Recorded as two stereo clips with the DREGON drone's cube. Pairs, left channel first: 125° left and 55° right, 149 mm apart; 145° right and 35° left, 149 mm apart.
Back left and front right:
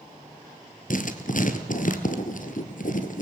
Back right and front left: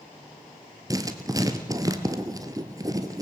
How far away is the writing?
About 1.7 m.